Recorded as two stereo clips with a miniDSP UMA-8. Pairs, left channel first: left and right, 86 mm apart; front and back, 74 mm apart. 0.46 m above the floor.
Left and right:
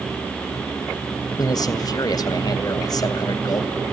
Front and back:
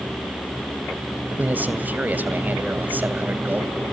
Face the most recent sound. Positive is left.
turn(degrees=115)